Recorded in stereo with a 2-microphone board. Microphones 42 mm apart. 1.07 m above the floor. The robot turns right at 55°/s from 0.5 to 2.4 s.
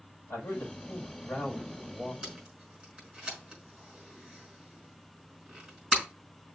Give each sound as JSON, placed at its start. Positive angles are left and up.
{"t": 0.3, "sound": "a man speaking", "azimuth_deg": 85, "distance_m": 5.0}
{"t": 2.2, "sound": "tape being pulled", "side_deg": -10, "distance_m": 5.0}